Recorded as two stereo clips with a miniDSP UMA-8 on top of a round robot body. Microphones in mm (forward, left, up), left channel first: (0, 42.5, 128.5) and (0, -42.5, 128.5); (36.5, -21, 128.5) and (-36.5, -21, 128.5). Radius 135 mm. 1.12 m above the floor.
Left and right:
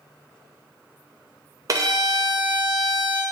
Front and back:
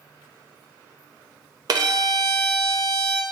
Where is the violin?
145° right, 0.5 m.